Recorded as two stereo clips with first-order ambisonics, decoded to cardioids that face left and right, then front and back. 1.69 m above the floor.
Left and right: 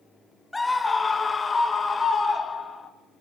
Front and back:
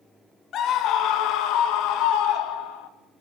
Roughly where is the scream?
Ahead.